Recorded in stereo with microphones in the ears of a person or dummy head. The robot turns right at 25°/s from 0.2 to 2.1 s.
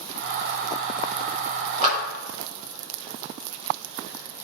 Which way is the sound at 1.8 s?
40° right (ahead or behind).